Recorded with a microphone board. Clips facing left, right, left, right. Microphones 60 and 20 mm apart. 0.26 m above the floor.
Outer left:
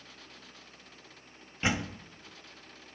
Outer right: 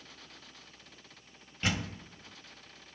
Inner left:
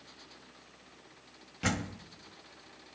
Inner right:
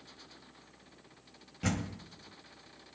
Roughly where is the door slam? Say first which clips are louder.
Outer left 3 dB, inner left 2 dB; left.